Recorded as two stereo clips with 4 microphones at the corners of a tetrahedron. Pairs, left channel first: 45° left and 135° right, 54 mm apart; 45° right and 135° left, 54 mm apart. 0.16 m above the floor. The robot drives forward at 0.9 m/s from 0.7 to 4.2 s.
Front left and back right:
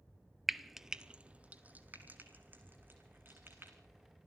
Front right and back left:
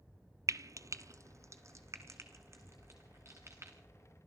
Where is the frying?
135° left, 0.6 m; by 3.7 s 170° left, 3 m.